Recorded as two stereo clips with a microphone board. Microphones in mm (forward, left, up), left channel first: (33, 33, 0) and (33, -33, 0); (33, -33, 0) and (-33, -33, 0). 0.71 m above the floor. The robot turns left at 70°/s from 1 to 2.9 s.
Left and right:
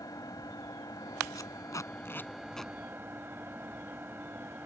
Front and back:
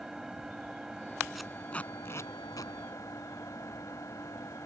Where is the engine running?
95° left; by 4.7 s 35° right.